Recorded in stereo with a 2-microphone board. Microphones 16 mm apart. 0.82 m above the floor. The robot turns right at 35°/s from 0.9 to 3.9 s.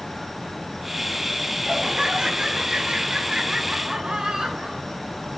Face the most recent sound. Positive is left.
turn(degrees=-55)